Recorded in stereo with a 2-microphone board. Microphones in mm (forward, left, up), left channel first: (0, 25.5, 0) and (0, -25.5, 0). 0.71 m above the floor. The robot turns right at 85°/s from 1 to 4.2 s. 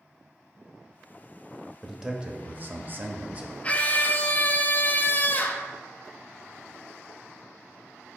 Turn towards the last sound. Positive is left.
turn(degrees=95)